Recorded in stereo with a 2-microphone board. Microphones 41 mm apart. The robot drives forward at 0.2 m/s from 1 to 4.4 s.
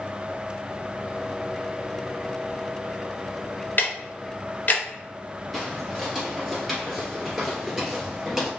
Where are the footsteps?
5° left (ahead or behind), 1.9 m; by 8.5 s 10° right (ahead or behind), 1.6 m.